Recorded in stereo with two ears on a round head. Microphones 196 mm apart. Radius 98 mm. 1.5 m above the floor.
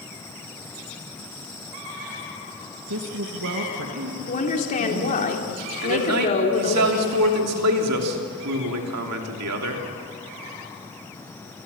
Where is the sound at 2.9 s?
80° right, 2.0 m; by 5.3 s 70° right (ahead or behind), 3.5 m.